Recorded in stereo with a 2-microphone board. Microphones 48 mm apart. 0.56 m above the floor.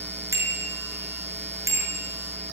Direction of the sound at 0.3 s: 80° right.